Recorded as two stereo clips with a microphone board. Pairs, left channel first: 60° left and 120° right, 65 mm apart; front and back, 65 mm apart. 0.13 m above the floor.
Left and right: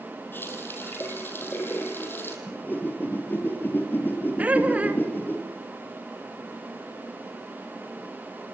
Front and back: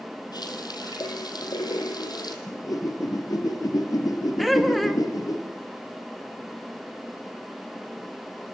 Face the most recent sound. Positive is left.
turn(degrees=-90)